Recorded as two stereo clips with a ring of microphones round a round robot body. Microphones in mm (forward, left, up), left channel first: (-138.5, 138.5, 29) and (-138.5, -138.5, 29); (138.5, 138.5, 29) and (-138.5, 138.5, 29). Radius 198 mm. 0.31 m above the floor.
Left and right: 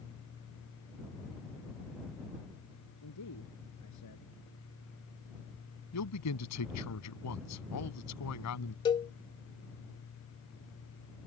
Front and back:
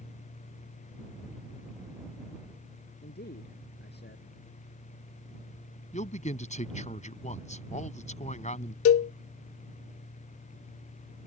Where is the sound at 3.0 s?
50° left.